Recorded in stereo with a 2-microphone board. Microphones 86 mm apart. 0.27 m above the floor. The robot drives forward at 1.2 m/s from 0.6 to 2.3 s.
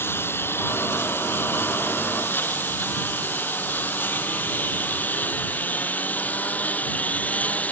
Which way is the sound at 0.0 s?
25° left (ahead or behind).